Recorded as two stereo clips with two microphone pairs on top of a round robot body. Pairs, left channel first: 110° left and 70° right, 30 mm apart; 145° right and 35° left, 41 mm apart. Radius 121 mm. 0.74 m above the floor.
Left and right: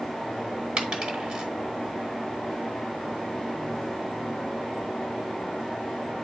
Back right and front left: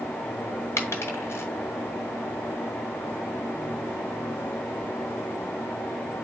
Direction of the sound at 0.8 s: 120° right.